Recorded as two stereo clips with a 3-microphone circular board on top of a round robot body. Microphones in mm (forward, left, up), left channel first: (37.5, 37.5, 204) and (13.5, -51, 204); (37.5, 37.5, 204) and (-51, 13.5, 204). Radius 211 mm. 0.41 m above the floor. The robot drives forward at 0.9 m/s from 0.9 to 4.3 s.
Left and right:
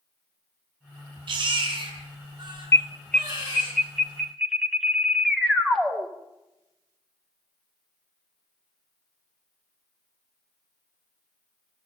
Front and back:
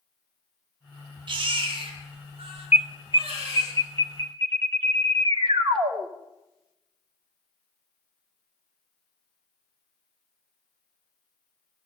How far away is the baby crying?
About 3.5 m.